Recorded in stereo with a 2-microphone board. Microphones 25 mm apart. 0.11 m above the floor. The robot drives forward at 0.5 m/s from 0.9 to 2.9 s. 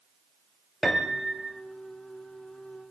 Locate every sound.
0.8 s a piano: 5° right (ahead or behind), 2 m; by 1.6 s 10° right (ahead or behind), 2.0 m